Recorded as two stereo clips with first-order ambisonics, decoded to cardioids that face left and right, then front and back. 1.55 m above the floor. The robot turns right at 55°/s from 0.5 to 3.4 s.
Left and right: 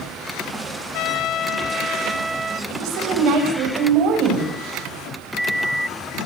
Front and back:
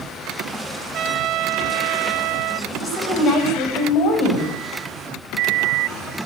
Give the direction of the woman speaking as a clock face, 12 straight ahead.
3 o'clock.